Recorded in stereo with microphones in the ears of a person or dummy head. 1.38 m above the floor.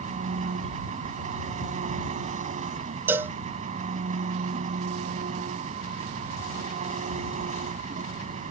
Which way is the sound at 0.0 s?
40° right (ahead or behind).